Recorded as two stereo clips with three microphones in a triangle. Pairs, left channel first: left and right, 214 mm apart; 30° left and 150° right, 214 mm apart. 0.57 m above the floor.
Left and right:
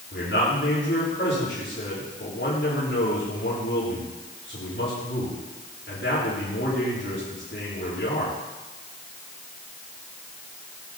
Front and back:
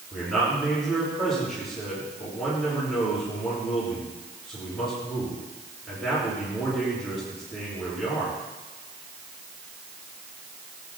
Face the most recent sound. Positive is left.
turn(degrees=120)